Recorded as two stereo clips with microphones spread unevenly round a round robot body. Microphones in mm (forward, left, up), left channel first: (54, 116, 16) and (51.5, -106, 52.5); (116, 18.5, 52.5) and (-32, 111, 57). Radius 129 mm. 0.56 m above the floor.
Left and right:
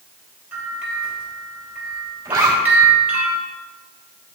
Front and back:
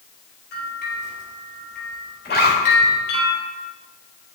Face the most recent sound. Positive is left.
turn(degrees=-10)